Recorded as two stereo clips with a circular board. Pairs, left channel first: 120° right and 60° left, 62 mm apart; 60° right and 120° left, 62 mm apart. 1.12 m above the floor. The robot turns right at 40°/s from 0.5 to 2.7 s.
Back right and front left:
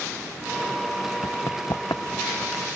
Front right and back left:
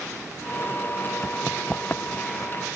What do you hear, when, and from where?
1.2 s running footsteps: 145° right; by 2.6 s 85° right